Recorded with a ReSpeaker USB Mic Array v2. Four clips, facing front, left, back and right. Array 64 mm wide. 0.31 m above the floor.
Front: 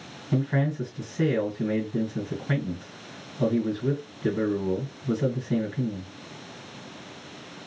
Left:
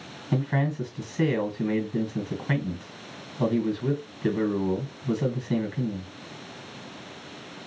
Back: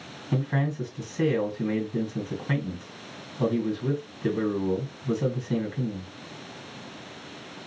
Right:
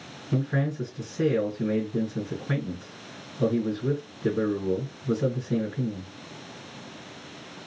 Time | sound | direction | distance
0.3 | a man speaking | 115° left | 2 m